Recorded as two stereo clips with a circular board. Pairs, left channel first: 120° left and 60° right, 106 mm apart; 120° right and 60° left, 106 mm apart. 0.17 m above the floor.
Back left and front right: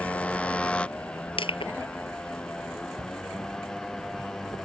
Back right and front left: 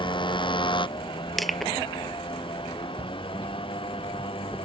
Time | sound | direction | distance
0.0 | a motorcycle | 160° right | ?
1.4 | crushing | 150° left | ?
3.0 | a shout | 5° right | ?